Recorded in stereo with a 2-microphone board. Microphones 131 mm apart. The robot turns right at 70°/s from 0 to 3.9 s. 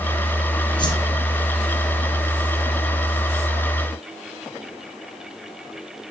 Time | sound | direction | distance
0.8 | a whoosh | 35° left (ahead or behind) | 1.5 m